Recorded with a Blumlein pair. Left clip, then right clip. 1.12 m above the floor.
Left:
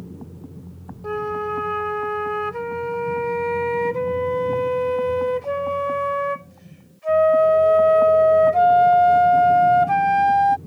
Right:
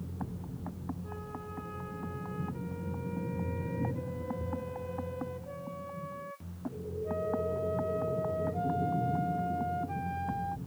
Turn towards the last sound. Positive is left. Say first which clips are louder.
# left 24 dB
turn(degrees=40)